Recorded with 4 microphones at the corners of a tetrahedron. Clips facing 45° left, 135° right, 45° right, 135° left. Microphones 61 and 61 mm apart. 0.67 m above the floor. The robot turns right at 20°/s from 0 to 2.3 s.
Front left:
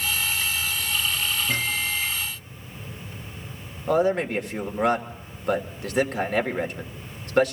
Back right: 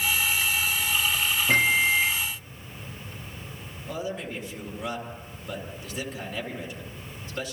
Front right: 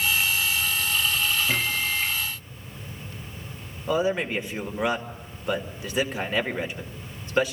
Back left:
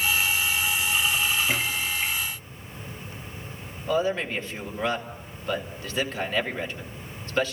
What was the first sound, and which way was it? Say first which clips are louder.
A microwave: back right 6 dB, front right 1 dB; 150° right.